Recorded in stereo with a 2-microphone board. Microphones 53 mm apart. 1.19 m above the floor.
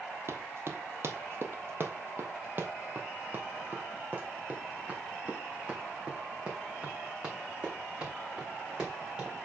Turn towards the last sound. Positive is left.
turn(degrees=-15)  # may be behind; listen again after turning